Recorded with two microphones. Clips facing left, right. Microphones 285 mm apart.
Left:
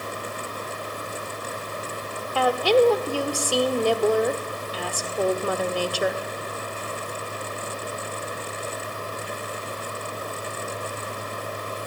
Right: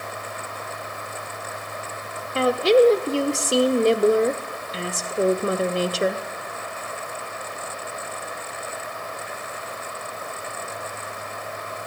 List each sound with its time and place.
2.4 s a woman speaking: 25° right (ahead or behind), 1.3 m